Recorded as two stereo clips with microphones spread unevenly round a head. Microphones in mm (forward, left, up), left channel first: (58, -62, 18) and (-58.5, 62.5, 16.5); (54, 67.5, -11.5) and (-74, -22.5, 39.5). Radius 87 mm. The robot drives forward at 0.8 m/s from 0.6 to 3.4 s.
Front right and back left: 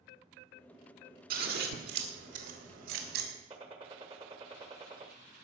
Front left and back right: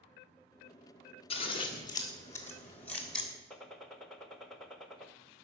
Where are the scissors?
95° left, 2.5 m; by 3.3 s 130° left, 3 m.